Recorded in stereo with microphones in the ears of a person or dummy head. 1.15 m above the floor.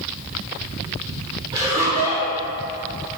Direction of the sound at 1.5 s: 15° right (ahead or behind).